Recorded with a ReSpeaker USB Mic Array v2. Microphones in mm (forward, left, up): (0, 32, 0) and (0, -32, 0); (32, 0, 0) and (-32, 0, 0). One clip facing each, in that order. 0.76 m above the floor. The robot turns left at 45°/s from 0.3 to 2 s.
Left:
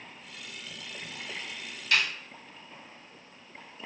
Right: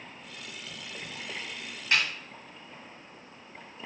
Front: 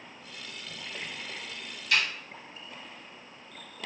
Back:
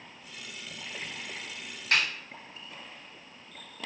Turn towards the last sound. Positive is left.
turn(degrees=-150)